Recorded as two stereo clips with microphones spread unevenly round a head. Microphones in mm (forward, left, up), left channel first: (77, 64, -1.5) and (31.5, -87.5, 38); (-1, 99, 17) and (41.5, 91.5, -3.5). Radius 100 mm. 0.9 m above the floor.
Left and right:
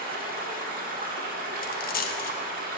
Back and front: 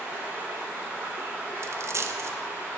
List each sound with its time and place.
0.0 s running water: 70° right, 1.2 m
1.6 s a dropped coin: 30° left, 0.5 m